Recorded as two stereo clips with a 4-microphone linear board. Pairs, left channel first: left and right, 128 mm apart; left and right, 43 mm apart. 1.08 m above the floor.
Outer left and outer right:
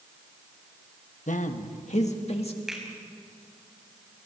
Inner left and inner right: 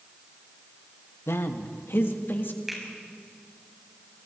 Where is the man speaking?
70° left (ahead or behind), 1.5 m; by 2.6 s 50° left (ahead or behind), 2.5 m.